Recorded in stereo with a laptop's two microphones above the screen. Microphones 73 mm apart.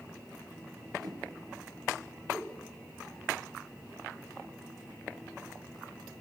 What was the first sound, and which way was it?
A whoosh, 70° right (ahead or behind).